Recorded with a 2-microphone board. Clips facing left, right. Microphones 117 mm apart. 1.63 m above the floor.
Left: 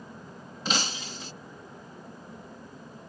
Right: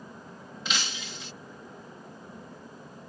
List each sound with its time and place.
0.7 s breaking glass: 40° left (ahead or behind)